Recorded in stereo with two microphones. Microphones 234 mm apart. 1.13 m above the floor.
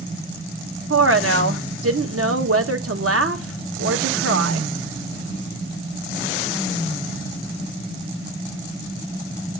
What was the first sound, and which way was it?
A woman speaking, 70° right (ahead or behind).